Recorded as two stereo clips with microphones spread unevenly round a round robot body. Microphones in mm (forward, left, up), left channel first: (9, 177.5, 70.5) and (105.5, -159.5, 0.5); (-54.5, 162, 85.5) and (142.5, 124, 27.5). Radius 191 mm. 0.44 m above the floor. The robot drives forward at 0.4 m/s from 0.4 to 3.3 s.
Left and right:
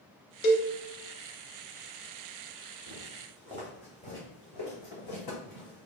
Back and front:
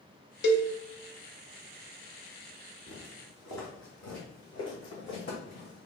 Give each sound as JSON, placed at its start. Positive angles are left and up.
{"t": 0.4, "sound": "a cowbell", "azimuth_deg": 130, "distance_m": 0.6}
{"t": 2.9, "sound": "footsteps", "azimuth_deg": -145, "distance_m": 1.1}